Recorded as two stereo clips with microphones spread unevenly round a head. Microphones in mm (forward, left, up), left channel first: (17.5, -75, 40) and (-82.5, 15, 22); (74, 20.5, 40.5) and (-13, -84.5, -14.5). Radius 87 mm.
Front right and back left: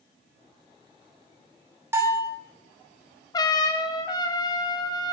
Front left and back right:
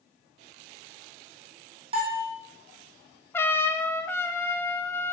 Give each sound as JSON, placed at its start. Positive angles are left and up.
{"t": 1.9, "sound": "a bell", "azimuth_deg": -155, "distance_m": 1.7}
{"t": 3.3, "sound": "a trumpet", "azimuth_deg": -60, "distance_m": 0.6}